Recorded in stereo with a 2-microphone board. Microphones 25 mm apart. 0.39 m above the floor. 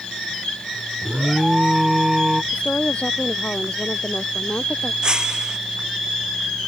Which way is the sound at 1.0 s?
15° right (ahead or behind).